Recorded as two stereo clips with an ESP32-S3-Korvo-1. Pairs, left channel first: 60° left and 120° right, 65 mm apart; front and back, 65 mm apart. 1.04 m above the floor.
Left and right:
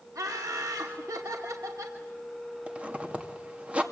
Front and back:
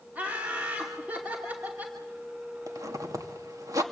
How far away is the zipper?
About 2.5 m.